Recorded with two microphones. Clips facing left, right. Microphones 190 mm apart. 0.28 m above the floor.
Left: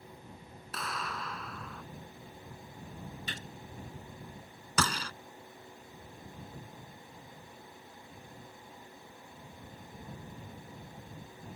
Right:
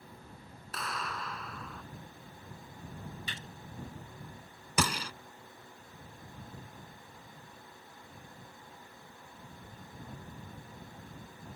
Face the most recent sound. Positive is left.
turn(degrees=-15)  # may be behind; listen again after turning